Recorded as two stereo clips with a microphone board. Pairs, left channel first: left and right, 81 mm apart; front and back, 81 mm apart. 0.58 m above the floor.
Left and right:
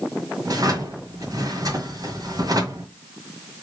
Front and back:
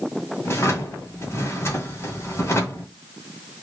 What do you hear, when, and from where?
0.5 s a drawer: 55° right, 1.5 m